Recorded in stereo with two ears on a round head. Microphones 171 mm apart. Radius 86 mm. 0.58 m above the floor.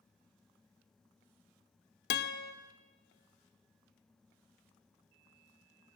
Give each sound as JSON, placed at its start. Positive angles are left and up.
{"t": 2.1, "sound": "a guitar", "side_deg": 55, "distance_m": 0.6}